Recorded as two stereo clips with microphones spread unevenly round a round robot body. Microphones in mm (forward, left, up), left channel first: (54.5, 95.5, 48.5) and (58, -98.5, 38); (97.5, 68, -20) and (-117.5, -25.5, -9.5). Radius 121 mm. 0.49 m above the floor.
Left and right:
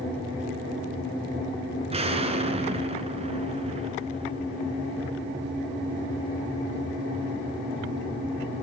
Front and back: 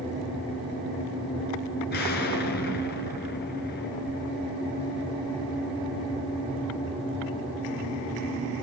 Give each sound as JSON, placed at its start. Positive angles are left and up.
{"t": 1.9, "sound": "an explosion", "azimuth_deg": -30, "distance_m": 3.0}